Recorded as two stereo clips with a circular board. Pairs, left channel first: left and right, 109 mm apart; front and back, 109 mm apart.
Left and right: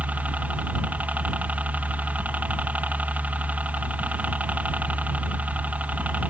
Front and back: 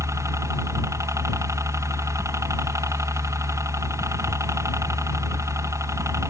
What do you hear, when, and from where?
0.0 s a helicopter: 155° right